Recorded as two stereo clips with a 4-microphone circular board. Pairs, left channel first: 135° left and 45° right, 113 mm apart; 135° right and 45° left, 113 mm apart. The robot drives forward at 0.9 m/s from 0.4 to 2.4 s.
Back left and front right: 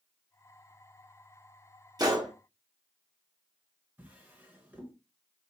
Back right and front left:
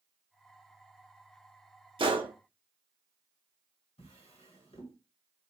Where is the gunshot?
10° left, 1.1 m.